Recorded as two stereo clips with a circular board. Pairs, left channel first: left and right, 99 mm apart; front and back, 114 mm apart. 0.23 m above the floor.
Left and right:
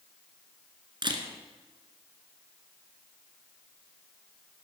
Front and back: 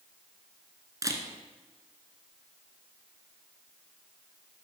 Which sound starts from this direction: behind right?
A camera shutter, at 1.0 s.